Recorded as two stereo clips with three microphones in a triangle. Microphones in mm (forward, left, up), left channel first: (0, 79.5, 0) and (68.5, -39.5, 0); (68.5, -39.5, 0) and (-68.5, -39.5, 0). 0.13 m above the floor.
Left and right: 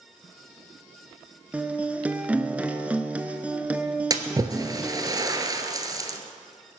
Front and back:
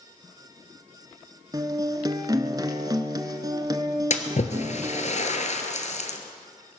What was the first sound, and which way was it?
A guitar, 135° right.